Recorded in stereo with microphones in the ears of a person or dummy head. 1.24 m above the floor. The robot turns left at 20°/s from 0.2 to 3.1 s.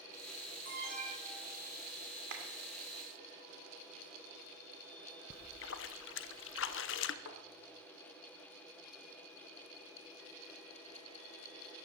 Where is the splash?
55° left (ahead or behind), 0.8 m.